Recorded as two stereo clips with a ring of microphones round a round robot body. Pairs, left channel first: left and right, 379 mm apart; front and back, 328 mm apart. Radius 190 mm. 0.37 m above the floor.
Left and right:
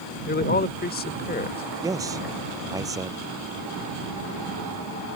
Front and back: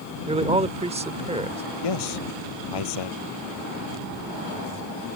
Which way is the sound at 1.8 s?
10° right.